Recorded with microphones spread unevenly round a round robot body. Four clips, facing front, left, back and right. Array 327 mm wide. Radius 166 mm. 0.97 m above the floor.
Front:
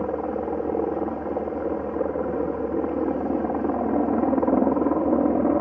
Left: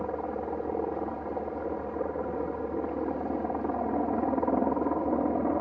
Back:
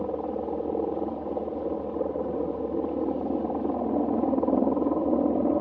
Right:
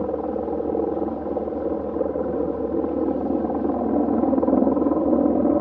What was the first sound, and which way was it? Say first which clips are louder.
A helicopter: right 8 dB, front 3 dB; 75° right.